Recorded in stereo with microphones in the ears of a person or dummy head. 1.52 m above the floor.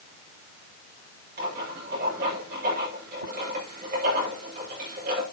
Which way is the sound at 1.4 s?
50° right (ahead or behind).